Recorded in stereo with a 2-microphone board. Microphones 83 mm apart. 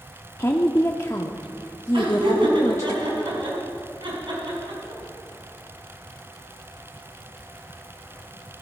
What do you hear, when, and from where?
0.4 s a woman speaking: 35° left (ahead or behind), 0.8 m
1.9 s laughter: 70° right (ahead or behind), 5 m